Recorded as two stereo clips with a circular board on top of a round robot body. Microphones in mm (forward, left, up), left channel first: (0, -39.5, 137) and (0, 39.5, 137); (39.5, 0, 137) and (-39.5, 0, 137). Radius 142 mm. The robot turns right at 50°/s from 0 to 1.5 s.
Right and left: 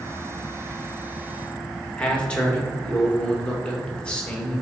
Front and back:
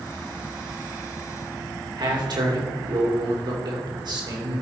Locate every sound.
2.0 s a man speaking: 165° right, 2.5 m